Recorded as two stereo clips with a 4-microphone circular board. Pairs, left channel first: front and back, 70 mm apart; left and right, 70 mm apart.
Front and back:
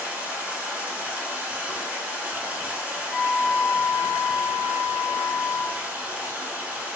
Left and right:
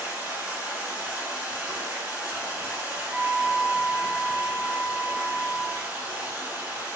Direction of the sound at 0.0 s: 130° right.